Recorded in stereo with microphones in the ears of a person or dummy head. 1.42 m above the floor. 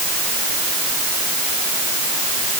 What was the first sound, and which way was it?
Only background noise.